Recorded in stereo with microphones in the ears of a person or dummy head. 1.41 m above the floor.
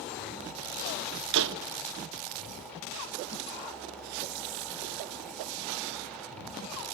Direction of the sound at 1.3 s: 65° right (ahead or behind).